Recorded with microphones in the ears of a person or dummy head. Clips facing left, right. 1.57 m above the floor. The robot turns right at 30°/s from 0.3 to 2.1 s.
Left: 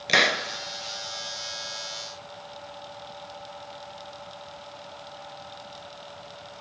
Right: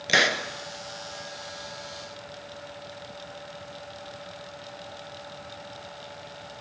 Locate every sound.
0.1 s a hiss: 5° left (ahead or behind), 1.0 m